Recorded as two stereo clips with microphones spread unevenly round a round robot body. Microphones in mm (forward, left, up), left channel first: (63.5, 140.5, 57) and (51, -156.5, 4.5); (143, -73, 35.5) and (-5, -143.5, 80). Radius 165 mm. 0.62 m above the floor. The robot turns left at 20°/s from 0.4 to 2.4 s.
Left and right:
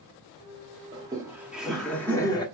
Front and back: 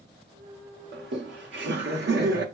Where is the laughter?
160° right, 1.1 m; by 2.5 s 170° left, 1.1 m.